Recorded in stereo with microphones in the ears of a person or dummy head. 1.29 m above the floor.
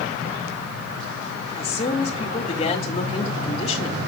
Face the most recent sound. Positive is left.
turn(degrees=30)  # may be behind; listen again after turning